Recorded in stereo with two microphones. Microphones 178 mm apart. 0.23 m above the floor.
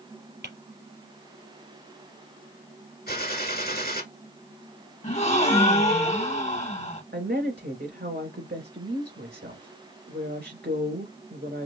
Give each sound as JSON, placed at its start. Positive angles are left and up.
{"t": 0.4, "sound": "tapping", "side_deg": -75, "distance_m": 3.5}
{"t": 3.1, "sound": "a gunshot", "side_deg": 55, "distance_m": 1.4}
{"t": 5.0, "sound": "a gasp", "side_deg": 40, "distance_m": 1.9}
{"t": 7.1, "sound": "a woman speaking", "side_deg": -70, "distance_m": 3.0}